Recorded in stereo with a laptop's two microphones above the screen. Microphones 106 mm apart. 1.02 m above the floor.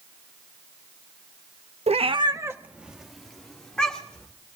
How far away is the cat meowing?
About 0.5 m.